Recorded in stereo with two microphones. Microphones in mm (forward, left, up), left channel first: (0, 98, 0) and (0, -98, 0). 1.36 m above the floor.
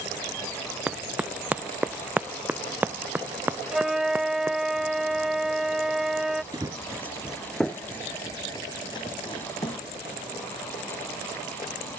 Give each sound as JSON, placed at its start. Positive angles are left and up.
{"t": 0.9, "sound": "running footsteps", "side_deg": -5}
{"t": 3.7, "sound": "a flute", "side_deg": -5}
{"t": 6.5, "sound": "running footsteps", "side_deg": -20}